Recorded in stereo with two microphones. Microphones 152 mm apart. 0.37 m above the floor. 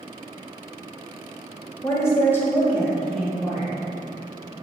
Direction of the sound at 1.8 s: 20° left (ahead or behind).